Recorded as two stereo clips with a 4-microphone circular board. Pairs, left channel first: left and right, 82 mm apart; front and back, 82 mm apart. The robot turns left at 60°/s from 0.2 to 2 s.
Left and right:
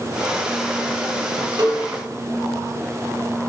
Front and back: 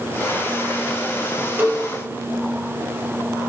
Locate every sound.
1.6 s a cowbell: 120° right, 5 m; by 1.9 s 135° right, 5 m